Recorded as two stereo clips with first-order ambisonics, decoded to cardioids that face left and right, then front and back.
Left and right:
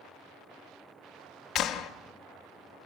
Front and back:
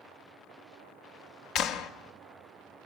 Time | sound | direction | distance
1.6 | a clap | 40° left | 1.1 m